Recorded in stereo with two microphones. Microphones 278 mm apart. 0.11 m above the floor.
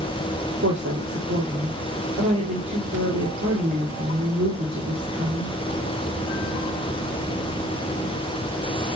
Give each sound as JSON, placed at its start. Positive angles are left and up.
{"t": 0.6, "sound": "a woman speaking", "side_deg": -45, "distance_m": 3.0}